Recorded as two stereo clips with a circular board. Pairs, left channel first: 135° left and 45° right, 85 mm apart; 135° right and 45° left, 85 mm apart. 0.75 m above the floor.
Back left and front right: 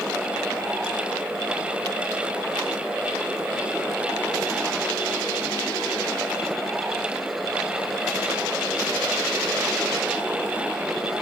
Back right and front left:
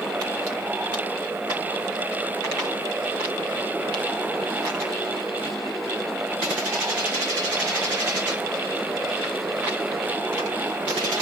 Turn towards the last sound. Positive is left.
No sound to turn to.